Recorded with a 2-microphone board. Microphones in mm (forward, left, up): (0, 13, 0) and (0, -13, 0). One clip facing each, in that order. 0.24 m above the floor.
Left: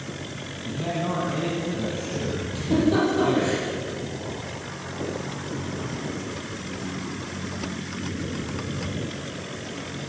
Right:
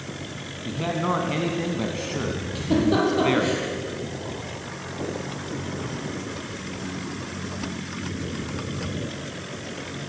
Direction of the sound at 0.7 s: 30° right (ahead or behind).